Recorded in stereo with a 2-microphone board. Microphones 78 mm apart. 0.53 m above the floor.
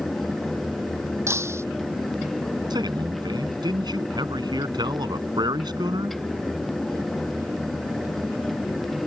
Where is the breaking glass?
35° right (ahead or behind).